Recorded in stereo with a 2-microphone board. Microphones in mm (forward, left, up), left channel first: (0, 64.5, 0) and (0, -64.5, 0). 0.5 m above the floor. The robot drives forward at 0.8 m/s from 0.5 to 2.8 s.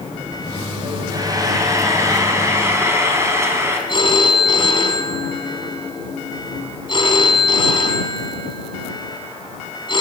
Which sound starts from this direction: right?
Frying, at 1.1 s.